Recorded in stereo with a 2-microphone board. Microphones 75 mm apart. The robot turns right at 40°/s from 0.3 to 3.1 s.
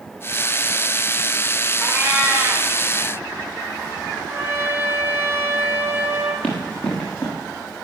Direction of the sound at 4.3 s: 30° right (ahead or behind).